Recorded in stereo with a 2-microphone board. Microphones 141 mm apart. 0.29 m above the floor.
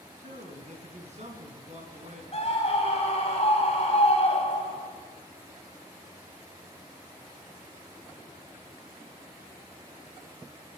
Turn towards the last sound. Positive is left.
turn(degrees=45)  # may be behind; listen again after turning